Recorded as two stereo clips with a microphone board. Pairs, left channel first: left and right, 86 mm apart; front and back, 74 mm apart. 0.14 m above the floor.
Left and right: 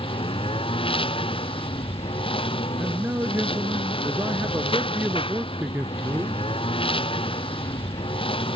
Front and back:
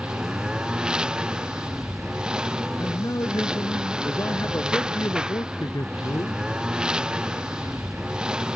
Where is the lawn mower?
100° left.